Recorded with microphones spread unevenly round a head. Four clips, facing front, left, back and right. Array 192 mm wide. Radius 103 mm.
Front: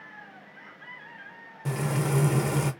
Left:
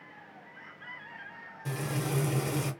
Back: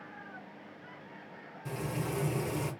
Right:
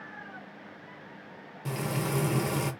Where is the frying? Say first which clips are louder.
Right 2 dB, front 7 dB; 25° right, 0.9 m.